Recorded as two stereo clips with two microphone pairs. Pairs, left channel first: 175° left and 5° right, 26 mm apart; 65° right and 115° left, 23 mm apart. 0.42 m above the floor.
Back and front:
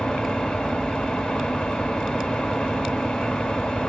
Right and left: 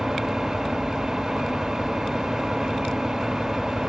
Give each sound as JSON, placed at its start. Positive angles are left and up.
{"t": 0.0, "sound": "an engine running", "azimuth_deg": 180, "distance_m": 1.3}